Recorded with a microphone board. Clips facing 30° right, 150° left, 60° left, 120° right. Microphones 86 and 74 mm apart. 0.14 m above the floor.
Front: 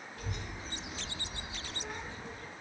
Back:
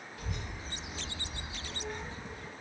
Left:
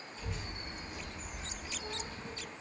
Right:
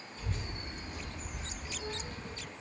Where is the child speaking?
75° right, 2.0 m; by 2.5 s 135° right, 1.2 m.